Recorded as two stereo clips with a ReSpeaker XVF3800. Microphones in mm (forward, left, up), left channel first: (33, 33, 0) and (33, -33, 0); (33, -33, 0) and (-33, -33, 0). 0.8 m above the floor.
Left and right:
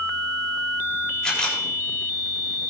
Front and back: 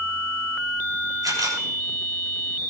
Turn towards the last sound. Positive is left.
turn(degrees=170)